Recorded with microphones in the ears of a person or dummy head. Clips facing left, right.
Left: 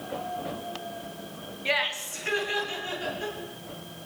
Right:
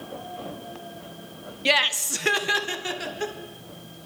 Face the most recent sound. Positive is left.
turn(degrees=-80)